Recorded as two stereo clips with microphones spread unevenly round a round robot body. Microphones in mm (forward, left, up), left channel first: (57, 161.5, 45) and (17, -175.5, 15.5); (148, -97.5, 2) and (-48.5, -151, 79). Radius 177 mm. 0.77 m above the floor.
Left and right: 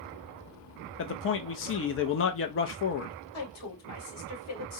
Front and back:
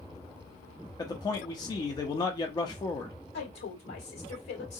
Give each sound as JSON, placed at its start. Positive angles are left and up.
{"t": 1.0, "sound": "a man speaking", "azimuth_deg": 40, "distance_m": 0.5}
{"t": 3.3, "sound": "a woman speaking", "azimuth_deg": 35, "distance_m": 2.0}